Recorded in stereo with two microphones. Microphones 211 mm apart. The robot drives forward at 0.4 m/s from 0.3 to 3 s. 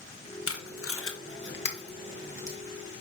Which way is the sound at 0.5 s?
85° left.